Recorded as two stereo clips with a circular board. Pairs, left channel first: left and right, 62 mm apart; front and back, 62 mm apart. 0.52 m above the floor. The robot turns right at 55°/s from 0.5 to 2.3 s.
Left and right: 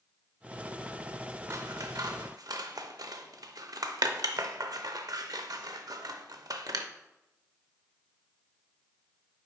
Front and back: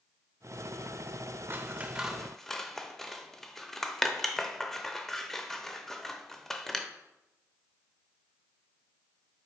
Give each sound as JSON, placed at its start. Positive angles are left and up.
{"t": 1.5, "sound": "scissors", "azimuth_deg": -125, "distance_m": 0.5}